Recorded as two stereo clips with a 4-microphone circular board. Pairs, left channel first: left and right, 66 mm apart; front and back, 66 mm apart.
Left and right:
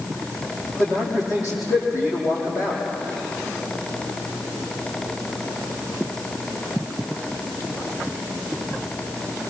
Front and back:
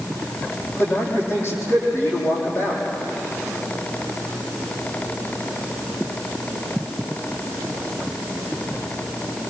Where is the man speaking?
50° left, 7.5 m.